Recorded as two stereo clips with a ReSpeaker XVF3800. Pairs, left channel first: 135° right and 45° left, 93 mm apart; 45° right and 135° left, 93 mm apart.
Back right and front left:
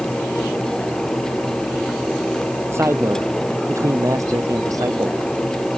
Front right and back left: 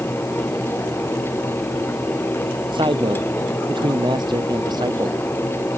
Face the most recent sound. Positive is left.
turn(degrees=95)